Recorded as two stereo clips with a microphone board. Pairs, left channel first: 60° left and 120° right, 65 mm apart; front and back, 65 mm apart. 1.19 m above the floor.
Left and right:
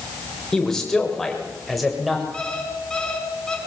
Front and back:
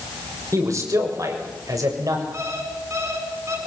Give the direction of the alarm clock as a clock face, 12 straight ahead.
7 o'clock.